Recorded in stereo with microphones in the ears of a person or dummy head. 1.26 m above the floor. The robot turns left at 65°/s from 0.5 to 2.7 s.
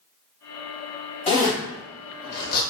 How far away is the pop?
I don't hear a pop.